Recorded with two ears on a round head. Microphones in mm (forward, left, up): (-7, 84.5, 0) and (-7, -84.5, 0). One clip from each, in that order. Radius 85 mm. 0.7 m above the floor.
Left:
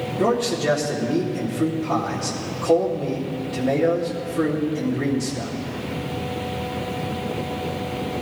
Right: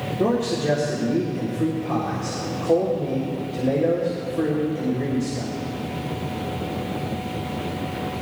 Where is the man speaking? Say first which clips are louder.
Left 2 dB; 55° left (ahead or behind), 1.9 m.